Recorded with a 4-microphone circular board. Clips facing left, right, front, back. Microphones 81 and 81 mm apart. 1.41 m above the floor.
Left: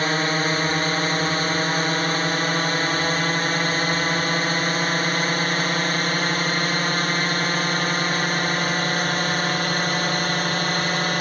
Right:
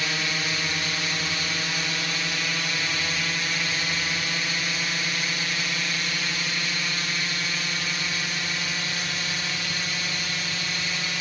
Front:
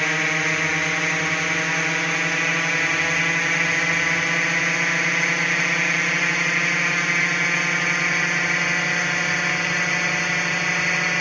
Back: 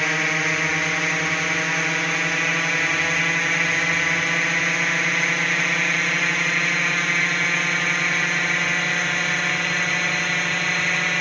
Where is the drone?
90° left; by 11.2 s 85° left.